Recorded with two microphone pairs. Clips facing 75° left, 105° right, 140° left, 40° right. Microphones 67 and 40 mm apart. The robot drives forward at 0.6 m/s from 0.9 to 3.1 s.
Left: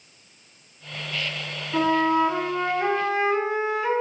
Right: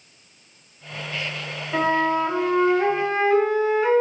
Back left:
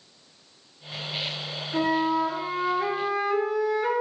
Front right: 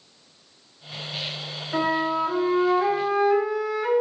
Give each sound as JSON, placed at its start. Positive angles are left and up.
{"t": 1.7, "sound": "a flute", "azimuth_deg": -60, "distance_m": 1.0}